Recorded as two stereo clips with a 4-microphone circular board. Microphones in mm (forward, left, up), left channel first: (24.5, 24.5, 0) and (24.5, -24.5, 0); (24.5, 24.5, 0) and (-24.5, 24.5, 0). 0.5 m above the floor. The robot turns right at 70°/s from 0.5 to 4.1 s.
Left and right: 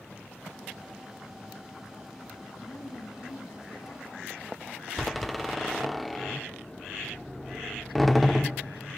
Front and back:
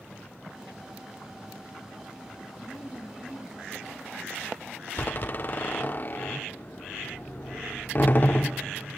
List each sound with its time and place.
2.5 s a woman speaking: 35° left, 4 m; by 4.9 s 145° left, 4 m
5.0 s a door slam: straight ahead, 0.5 m